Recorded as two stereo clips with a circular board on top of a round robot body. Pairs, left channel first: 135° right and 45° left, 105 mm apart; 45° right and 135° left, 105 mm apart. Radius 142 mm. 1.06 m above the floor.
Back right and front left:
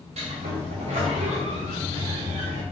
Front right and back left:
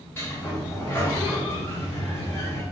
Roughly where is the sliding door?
Ahead left.